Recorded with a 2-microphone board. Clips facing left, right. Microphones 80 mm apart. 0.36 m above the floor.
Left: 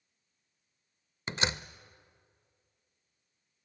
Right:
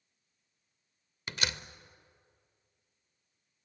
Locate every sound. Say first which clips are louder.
1.3 s a door slam: left 4 dB; 25° left (ahead or behind), 0.6 m